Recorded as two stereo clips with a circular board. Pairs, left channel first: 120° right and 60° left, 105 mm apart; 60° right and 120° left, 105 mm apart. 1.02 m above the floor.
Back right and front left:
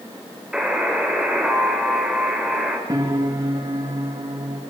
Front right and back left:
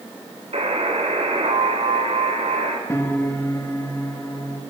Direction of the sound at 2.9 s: 5° left.